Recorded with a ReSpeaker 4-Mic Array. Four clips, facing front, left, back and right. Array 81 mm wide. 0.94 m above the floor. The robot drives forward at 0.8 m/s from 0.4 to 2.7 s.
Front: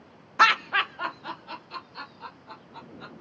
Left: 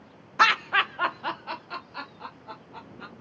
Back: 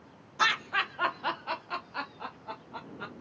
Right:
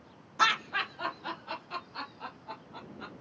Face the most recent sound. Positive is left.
turn(degrees=165)